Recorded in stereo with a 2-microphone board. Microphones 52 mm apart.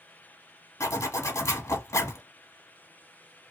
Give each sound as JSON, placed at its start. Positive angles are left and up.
{"t": 0.8, "sound": "a zipper", "side_deg": 85, "distance_m": 1.0}